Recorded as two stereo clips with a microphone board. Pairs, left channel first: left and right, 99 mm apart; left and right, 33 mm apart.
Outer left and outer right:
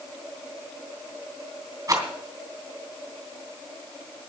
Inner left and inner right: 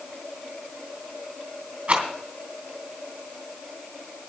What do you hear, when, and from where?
1.9 s a rattle: 35° right (ahead or behind), 3 m